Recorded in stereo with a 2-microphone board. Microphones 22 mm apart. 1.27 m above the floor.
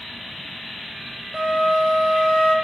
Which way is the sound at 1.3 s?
75° right (ahead or behind).